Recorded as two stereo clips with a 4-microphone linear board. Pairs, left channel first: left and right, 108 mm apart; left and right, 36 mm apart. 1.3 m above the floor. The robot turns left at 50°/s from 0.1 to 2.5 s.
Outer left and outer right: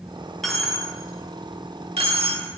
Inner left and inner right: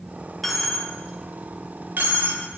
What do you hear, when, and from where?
0.4 s a dropped coin: 5° left (ahead or behind), 1.6 m; by 2.4 s 70° right (ahead or behind), 1.6 m